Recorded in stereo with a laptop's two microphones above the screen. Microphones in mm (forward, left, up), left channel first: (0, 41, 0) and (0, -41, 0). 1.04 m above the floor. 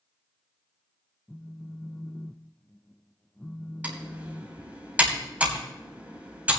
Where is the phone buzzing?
15° left (ahead or behind), 0.7 m.